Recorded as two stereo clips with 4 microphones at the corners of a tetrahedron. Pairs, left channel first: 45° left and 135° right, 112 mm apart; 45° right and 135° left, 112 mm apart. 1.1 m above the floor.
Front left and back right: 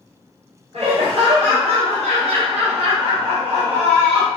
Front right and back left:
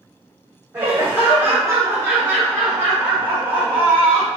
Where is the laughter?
155° right, 0.9 m.